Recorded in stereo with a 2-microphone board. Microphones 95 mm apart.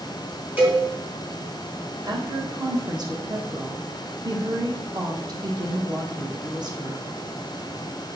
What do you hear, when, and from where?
0.6 s a cowbell: 20° right (ahead or behind), 3.5 m
2.0 s a woman speaking: 45° right (ahead or behind), 1.2 m